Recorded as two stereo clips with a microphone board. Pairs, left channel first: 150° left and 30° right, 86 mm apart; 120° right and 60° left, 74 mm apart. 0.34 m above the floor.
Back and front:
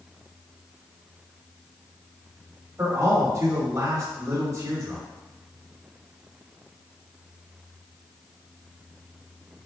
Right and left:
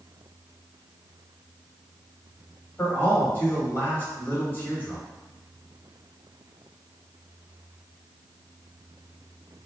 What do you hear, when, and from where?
2.8 s a man speaking: 65° right, 1.8 m